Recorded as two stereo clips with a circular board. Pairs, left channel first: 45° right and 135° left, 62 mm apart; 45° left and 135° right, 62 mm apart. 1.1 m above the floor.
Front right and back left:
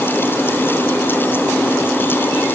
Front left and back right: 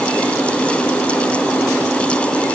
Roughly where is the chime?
No chime in this recording.